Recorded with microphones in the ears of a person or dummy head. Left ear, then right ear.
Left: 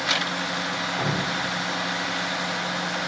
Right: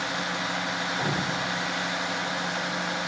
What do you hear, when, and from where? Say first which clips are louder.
1.0 s dripping: left 2 dB; 65° left (ahead or behind), 1.6 m